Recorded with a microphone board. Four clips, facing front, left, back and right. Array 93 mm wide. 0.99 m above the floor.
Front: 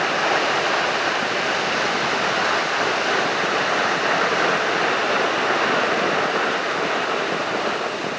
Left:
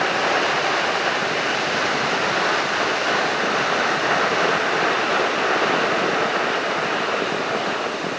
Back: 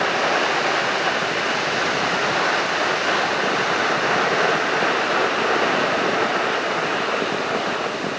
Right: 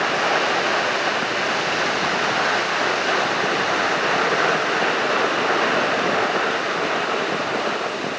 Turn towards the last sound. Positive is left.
No sound to turn to.